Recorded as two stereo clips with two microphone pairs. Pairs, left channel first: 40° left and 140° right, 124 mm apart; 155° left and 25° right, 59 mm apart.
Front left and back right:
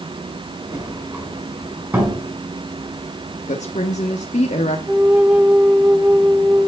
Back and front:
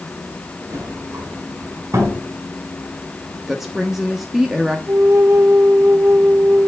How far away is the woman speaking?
About 1.1 m.